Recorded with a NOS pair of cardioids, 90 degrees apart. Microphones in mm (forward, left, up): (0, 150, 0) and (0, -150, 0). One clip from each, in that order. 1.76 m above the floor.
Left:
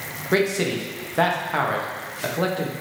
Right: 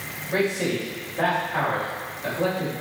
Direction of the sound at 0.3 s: 70° left.